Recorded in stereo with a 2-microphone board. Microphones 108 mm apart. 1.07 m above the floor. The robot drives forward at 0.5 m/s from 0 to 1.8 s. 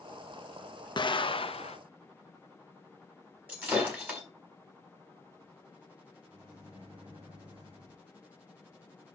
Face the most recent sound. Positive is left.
turn(degrees=-45)  # may be behind; listen again after turning